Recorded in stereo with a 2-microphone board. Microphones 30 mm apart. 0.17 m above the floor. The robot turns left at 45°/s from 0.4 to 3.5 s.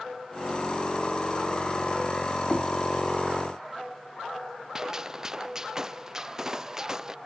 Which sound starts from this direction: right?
A gunshot, at 4.8 s.